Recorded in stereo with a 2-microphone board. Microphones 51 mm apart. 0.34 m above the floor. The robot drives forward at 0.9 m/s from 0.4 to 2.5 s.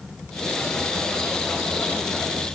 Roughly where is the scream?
No scream in this recording.